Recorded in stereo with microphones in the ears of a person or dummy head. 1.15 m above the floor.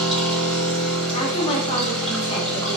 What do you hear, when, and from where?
0.0 s a machine running: centre (ahead or behind), 1.9 m
1.1 s a woman speaking: 35° left (ahead or behind), 0.8 m